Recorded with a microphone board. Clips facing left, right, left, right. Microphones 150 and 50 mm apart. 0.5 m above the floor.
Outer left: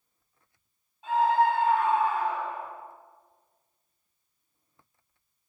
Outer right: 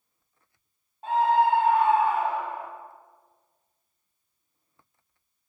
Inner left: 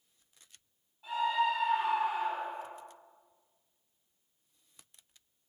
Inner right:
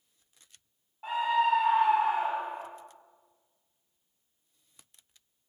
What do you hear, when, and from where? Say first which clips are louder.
1.0 s a scream: outer right 2 dB, inner right 4 dB; 55° right (ahead or behind), 3 m; by 2.7 s 70° right (ahead or behind), 3 m